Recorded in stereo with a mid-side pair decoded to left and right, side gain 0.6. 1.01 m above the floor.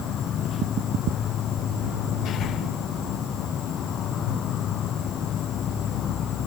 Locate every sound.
0.0 s an insect: 50° left